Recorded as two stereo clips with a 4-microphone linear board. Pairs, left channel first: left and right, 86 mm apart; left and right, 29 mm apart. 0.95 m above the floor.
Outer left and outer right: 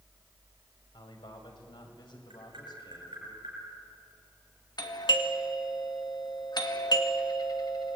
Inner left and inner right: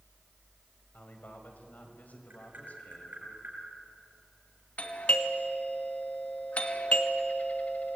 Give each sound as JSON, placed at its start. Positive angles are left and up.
{"t": 0.9, "sound": "a man speaking", "side_deg": 75, "distance_m": 5.0}
{"t": 2.3, "sound": "tapping", "side_deg": -80, "distance_m": 7.5}
{"t": 4.8, "sound": "a doorbell", "side_deg": 55, "distance_m": 2.0}